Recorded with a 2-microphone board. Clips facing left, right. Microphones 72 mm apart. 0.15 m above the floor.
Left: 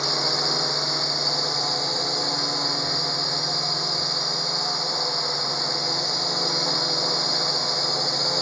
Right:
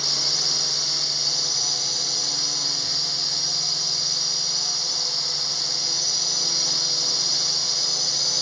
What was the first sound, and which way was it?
A drone, 40° left (ahead or behind).